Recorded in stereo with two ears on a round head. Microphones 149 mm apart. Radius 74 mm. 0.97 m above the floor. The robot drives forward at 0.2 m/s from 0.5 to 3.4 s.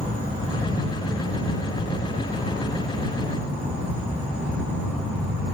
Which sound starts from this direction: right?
An insect, at 0.0 s.